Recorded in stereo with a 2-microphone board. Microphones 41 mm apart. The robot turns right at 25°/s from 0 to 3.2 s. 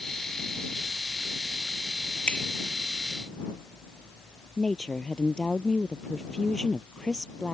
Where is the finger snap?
30° left (ahead or behind); by 2.5 s 25° left (ahead or behind).